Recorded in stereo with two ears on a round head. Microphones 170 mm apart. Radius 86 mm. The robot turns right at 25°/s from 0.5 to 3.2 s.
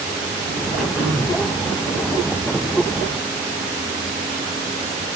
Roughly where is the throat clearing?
Centre.